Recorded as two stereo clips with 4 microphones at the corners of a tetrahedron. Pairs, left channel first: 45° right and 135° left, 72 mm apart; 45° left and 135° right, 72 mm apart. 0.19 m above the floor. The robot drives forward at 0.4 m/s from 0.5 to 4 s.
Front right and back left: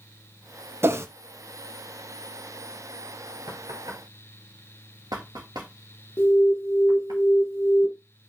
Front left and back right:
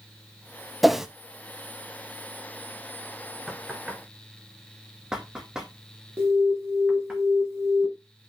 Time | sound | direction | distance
0.8 | a whoosh | 135° left | 0.6 m
3.5 | knocking | 145° left | 1.9 m
6.2 | an alarm | 95° right | 1.1 m